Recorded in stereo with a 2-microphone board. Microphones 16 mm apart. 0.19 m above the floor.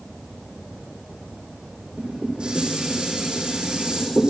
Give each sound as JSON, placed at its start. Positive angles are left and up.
{"t": 2.0, "sound": "dishes clattering", "side_deg": -70, "distance_m": 7.5}